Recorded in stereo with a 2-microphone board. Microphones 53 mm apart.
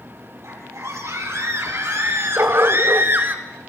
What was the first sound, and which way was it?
A scream, 65° right (ahead or behind).